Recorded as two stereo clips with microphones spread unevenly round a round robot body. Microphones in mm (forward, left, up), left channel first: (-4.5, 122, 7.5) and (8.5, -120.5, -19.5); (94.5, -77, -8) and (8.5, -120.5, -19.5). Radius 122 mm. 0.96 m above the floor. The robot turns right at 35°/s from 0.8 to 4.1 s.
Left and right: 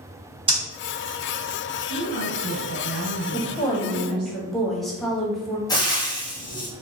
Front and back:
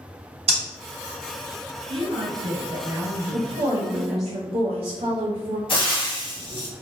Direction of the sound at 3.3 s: 160° left.